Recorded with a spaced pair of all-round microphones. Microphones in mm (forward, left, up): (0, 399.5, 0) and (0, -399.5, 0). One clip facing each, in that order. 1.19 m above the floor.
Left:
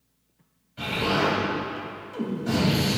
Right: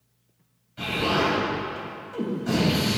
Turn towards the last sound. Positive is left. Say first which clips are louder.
# even
turn(degrees=0)  # may be behind; listen again after turning